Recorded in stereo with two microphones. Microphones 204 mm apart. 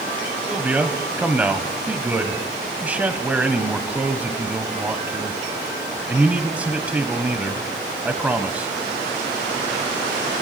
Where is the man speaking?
10° right (ahead or behind), 1.0 m.